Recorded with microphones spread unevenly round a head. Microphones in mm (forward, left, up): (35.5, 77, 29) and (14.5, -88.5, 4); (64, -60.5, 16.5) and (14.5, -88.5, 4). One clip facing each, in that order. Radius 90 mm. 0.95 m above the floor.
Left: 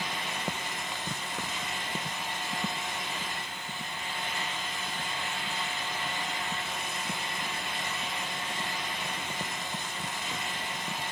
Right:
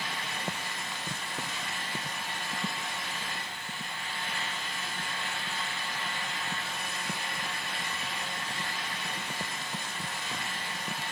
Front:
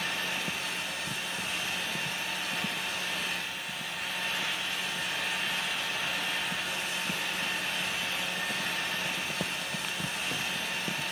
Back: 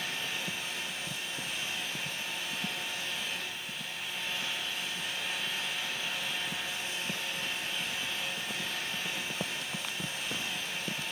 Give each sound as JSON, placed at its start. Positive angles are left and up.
{"t": 0.0, "sound": "a fan", "azimuth_deg": 10, "distance_m": 8.5}